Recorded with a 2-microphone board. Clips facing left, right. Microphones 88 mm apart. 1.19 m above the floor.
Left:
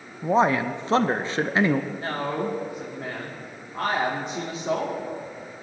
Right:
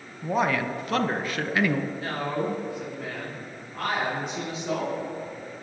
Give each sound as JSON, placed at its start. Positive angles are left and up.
{"t": 0.2, "sound": "a man speaking", "side_deg": 25, "distance_m": 0.6}
{"t": 1.9, "sound": "a man speaking", "side_deg": 25, "distance_m": 3.0}